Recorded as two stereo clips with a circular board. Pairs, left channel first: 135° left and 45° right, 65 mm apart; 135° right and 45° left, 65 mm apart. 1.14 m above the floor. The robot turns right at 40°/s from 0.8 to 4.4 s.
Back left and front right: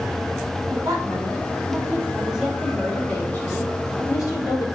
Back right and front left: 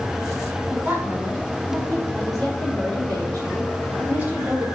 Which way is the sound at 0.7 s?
30° right.